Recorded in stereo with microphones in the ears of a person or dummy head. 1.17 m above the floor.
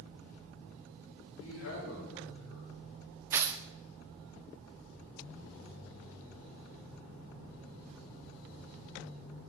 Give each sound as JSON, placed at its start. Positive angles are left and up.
{"t": 1.4, "sound": "a man speaking", "side_deg": 65, "distance_m": 5.0}
{"t": 3.3, "sound": "tearing paper", "side_deg": -20, "distance_m": 0.5}